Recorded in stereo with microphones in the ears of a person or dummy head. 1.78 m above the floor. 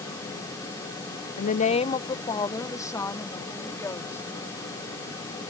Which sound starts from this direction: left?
A woman speaking, at 1.4 s.